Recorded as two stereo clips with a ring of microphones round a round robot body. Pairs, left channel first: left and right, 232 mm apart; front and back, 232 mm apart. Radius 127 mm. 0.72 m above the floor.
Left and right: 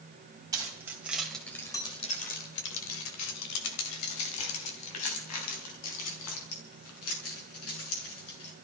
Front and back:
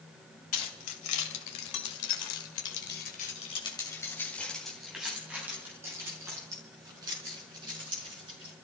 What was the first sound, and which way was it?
Keys jangling, 15° right.